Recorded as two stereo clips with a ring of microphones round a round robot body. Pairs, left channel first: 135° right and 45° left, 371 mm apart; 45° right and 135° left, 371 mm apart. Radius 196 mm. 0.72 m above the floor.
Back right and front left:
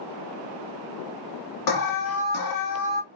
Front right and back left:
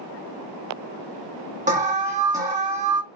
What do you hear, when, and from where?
1.7 s an alarm: 155° right, 1.4 m